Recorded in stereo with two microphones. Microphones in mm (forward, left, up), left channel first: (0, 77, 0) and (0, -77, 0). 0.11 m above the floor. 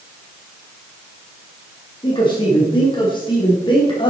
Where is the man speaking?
30° left (ahead or behind), 5 m.